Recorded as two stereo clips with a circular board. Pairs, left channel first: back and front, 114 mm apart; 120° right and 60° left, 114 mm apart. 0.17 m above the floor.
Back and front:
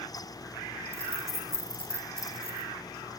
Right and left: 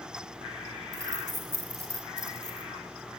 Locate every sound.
0.9 s keys jangling: 155° left, 1.9 m